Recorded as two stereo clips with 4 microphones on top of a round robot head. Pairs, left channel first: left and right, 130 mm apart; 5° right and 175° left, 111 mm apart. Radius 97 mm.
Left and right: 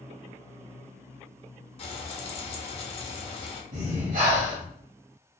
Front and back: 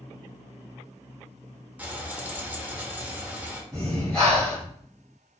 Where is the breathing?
95° right, 1.9 m.